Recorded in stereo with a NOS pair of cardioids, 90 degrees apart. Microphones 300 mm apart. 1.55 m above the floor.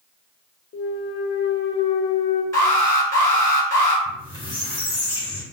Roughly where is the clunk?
Ahead left.